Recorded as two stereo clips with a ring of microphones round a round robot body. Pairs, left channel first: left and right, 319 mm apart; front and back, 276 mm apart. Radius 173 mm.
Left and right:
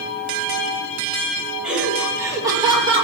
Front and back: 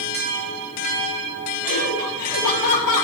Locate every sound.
1.6 s laughter: straight ahead, 6.5 m; by 3.0 s 15° right, 7 m